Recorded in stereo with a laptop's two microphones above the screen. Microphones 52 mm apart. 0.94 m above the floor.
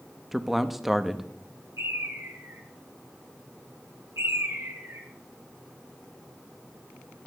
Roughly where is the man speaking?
Centre.